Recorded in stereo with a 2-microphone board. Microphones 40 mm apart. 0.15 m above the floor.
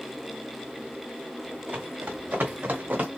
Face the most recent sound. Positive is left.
turn(degrees=-40)  # may be behind; listen again after turning